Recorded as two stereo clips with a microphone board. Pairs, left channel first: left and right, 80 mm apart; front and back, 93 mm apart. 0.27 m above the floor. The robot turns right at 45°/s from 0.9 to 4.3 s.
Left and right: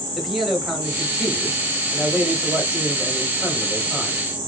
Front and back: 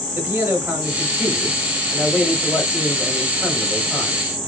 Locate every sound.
0.1 s a man speaking: 170° right, 1.0 m; by 4.2 s 20° right, 1.0 m